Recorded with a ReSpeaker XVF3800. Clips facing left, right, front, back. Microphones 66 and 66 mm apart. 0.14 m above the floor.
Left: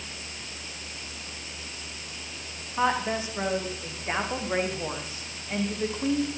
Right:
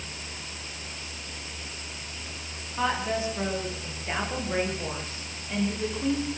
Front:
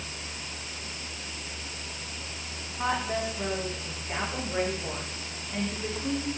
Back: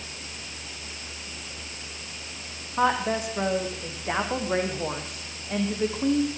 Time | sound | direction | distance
2.8 | a woman speaking | 160° left | 9 m